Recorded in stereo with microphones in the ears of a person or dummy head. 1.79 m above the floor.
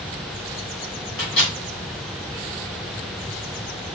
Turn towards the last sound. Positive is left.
turn(degrees=65)  # may be behind; listen again after turning